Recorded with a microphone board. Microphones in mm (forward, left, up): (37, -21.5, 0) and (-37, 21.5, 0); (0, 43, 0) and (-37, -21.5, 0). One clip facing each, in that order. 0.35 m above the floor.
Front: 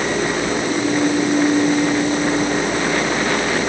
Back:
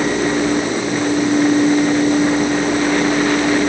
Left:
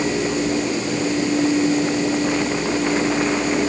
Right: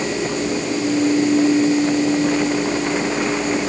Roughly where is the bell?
I don't hear a bell.